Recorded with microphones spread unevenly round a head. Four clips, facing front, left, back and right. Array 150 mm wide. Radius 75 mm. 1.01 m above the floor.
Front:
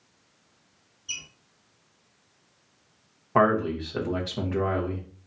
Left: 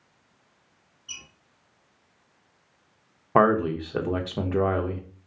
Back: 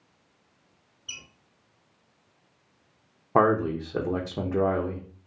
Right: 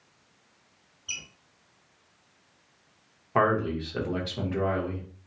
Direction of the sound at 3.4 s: 130° left.